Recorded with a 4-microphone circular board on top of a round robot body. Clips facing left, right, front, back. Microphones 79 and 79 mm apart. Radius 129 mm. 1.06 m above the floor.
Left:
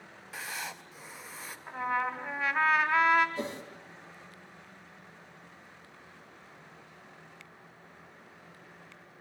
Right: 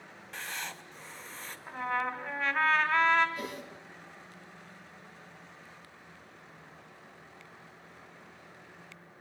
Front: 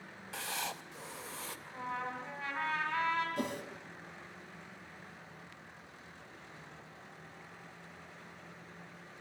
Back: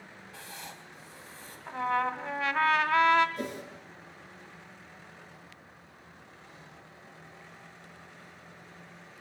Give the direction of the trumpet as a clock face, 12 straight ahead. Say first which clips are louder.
Left 1 dB, back 11 dB; 6 o'clock.